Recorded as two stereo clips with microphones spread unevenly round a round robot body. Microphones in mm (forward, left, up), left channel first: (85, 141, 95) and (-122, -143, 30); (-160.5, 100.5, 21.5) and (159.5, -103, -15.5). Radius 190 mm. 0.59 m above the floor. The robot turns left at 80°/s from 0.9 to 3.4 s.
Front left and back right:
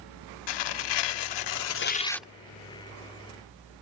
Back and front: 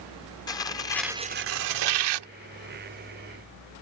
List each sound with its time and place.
0.5 s tearing paper: 65° left; by 2.3 s 45° right